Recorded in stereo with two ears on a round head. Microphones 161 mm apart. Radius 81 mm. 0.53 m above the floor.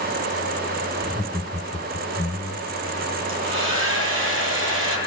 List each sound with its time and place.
1.0 s laughter: 15° left (ahead or behind), 2.5 m
3.3 s a hair dryer: 75° right (ahead or behind), 10 m